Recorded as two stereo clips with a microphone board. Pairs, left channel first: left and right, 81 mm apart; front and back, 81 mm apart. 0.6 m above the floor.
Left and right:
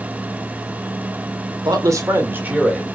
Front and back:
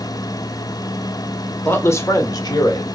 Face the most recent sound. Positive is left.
turn(degrees=-5)